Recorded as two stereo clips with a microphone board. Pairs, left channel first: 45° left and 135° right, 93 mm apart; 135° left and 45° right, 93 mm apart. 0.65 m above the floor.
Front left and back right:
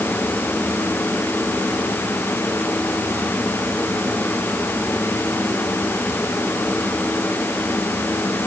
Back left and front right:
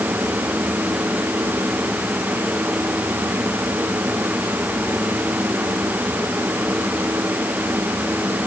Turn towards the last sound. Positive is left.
No sound to turn to.